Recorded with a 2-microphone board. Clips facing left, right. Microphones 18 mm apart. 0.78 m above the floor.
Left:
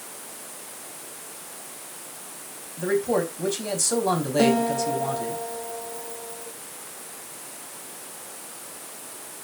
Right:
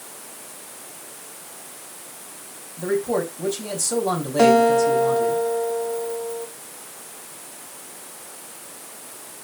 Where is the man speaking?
15° left (ahead or behind), 4 m.